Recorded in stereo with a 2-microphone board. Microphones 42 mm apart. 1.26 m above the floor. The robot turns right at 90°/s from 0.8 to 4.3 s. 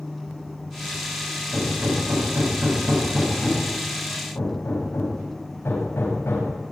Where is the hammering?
40° right (ahead or behind), 7 m; by 6.5 s 70° left (ahead or behind), 7 m.